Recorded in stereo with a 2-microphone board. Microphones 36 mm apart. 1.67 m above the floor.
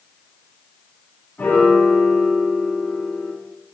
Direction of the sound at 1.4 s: 85° left.